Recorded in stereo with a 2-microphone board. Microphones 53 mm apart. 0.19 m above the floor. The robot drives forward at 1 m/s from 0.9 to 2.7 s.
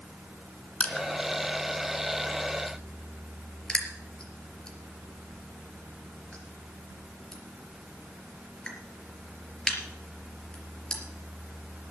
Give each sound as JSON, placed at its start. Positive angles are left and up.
{"t": 0.8, "sound": "crushing", "side_deg": 25, "distance_m": 2.0}